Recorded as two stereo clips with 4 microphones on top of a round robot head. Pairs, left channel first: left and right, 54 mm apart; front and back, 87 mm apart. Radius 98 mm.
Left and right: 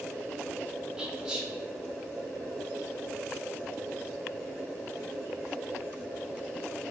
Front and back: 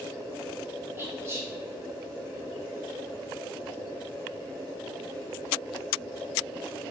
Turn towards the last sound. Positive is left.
turn(degrees=-155)